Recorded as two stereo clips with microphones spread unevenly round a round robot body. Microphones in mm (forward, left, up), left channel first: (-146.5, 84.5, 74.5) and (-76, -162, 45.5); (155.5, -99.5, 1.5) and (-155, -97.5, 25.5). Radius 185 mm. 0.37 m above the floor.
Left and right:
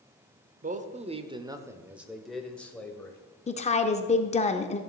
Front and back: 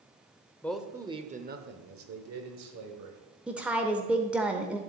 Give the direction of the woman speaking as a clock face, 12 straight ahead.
9 o'clock.